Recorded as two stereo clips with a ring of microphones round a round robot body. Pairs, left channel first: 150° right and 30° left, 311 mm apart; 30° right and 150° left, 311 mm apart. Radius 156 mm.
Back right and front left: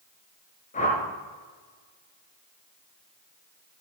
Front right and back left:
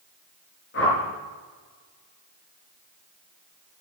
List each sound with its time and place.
0.7 s a whoosh: 85° right, 4.5 m